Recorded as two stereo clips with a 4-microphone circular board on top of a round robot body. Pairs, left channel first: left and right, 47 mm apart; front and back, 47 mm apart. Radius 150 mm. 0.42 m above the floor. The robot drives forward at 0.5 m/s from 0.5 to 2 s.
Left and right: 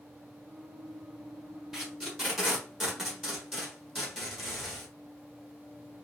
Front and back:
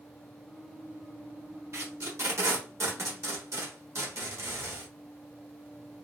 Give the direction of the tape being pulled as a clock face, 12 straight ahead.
6 o'clock.